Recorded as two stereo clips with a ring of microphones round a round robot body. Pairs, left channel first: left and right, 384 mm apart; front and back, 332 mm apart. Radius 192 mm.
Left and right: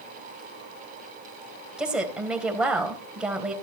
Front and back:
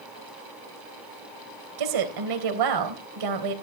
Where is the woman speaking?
175° right, 3 m.